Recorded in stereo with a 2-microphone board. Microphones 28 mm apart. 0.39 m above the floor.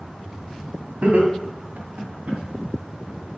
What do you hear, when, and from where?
1.0 s laughter: 65° right (ahead or behind), 2 m; by 2.4 s 75° right (ahead or behind), 3 m